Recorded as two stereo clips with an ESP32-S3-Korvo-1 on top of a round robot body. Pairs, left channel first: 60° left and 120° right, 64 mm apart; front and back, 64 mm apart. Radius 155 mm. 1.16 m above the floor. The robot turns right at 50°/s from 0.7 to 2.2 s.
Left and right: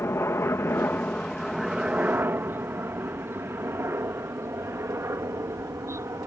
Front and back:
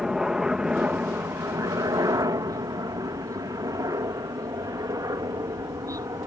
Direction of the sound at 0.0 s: 100° left.